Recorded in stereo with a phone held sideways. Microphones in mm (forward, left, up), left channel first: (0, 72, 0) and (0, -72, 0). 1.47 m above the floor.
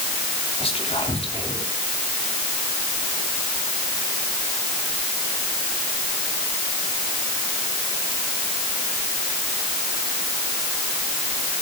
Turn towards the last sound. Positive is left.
turn(degrees=45)  # may be behind; listen again after turning